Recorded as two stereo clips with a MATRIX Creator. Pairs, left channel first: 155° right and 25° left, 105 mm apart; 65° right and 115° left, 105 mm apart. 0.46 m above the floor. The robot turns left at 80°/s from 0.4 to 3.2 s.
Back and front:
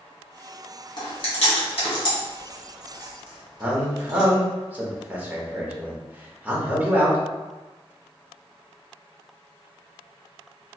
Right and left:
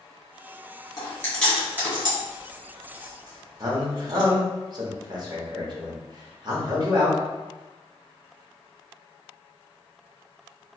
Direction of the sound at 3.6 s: 90° left.